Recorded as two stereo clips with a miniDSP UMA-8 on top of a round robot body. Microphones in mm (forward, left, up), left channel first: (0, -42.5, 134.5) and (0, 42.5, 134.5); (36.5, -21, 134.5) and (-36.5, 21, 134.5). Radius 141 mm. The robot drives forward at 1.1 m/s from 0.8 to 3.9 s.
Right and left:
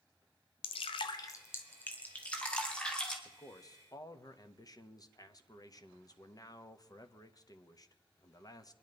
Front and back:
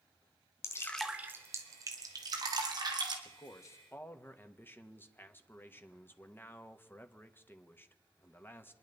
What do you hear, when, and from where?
0.6 s dripping: 90° right, 0.5 m; by 3.1 s 170° right, 2.5 m
3.2 s a man speaking: 50° right, 1.5 m; by 8.7 s 85° right, 1.3 m